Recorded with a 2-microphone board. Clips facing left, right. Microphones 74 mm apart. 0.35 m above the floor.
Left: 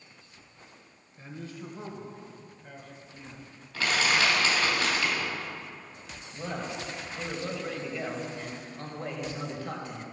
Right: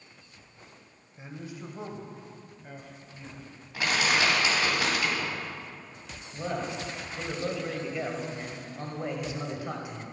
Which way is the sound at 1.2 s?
20° right (ahead or behind).